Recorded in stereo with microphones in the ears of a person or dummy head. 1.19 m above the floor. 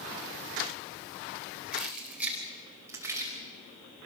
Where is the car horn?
I don't hear a car horn.